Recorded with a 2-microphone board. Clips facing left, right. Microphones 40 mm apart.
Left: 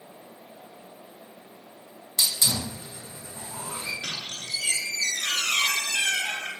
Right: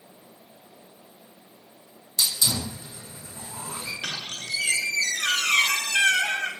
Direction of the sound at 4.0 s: 60° right (ahead or behind).